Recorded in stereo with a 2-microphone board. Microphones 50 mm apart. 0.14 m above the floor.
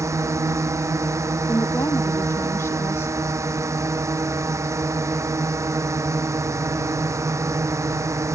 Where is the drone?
75° right (ahead or behind).